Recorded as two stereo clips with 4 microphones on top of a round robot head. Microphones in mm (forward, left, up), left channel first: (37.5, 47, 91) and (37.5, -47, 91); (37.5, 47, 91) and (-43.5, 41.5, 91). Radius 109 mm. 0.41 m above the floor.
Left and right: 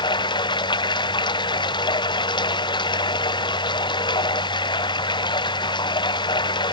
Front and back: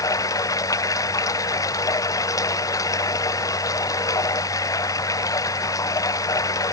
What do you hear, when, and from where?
0.0 s running water: 50° left